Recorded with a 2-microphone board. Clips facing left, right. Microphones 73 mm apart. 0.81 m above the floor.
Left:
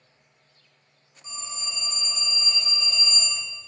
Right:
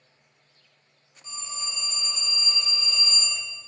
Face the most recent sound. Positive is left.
turn(degrees=25)  # may be behind; listen again after turning